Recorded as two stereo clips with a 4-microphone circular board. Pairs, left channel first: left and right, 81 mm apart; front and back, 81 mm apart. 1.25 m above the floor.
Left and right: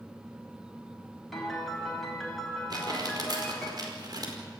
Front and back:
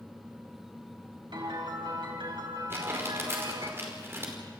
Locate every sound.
1.3 s a piano: straight behind, 4.5 m
2.7 s crumpling: 120° right, 5 m